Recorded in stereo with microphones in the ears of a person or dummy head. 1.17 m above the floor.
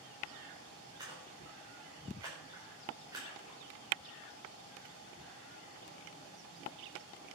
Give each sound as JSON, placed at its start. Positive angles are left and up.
{"t": 1.0, "sound": "a splash", "side_deg": -20, "distance_m": 4.5}